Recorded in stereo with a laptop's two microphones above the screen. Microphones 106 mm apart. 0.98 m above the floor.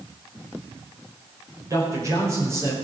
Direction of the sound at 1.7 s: 30° right (ahead or behind).